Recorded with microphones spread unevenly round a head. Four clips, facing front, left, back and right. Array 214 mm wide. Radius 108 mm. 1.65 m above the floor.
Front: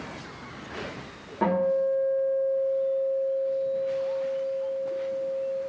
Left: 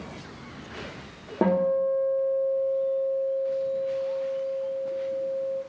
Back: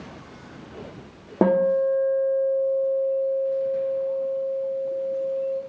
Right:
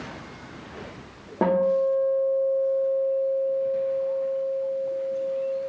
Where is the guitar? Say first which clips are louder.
Right 2 dB, back 4 dB; 170° left, 1.0 m.